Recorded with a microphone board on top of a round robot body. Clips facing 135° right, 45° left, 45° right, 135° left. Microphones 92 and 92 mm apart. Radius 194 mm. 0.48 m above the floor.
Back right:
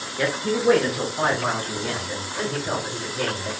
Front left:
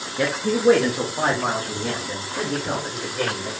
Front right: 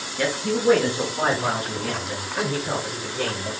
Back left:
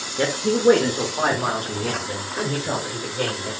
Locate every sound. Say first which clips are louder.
0.2 s a man speaking: front left 2 dB, back left 3 dB; 105° left, 1.1 m; by 3.5 s 80° left, 3 m